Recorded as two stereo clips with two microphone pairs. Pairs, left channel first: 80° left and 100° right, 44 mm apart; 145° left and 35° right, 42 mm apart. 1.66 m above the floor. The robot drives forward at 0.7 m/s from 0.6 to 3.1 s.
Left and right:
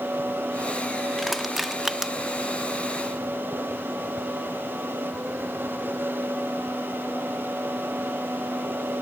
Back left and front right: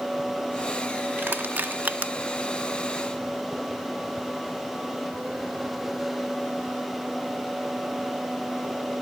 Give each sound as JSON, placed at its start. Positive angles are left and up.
{"t": 1.2, "sound": "crushing", "azimuth_deg": -15}